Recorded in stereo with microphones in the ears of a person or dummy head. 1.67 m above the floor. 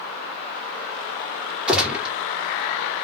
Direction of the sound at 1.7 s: 5° right (ahead or behind).